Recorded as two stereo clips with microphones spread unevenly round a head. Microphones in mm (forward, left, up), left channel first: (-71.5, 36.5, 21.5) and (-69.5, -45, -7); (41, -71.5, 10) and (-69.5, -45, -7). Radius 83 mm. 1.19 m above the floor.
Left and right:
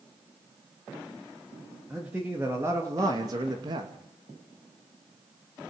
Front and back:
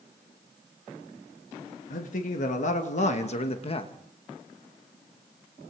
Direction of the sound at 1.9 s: 10° right.